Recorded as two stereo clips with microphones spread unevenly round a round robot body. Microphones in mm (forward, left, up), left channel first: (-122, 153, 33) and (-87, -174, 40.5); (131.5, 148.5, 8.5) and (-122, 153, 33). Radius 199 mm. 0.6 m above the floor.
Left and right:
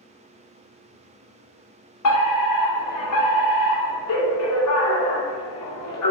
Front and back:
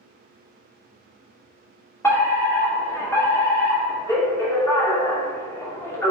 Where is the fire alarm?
75° left, 2.5 m.